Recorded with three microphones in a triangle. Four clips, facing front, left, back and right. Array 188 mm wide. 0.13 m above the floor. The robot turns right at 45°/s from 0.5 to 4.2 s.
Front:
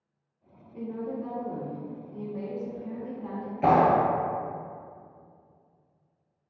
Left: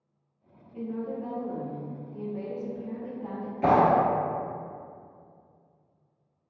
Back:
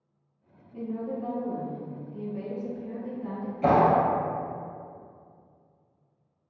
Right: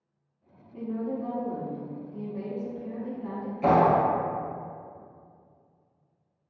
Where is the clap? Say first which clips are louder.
Even, even; 20° left, 1.5 m; by 4.0 s 40° left, 1.5 m.